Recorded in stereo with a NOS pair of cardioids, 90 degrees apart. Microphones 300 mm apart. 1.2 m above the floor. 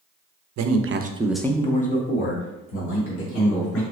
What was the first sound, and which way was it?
A man speaking, 65° right.